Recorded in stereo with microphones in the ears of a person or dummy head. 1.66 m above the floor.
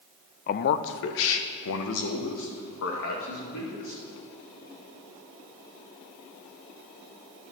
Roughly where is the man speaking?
Left.